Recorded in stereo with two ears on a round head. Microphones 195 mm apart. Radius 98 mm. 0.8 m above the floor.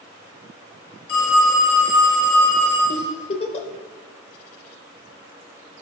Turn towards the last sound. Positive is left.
turn(degrees=30)  # may be behind; listen again after turning